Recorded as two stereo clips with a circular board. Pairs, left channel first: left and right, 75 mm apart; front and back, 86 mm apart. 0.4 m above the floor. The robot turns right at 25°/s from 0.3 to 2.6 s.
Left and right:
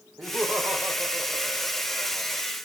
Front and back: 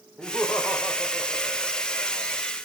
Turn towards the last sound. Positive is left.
turn(degrees=-25)